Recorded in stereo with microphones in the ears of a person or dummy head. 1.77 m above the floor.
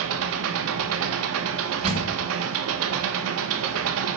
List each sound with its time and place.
0.0 s an engine running: 70° right (ahead or behind), 1.6 m
1.8 s a door slam: 30° right (ahead or behind), 4.5 m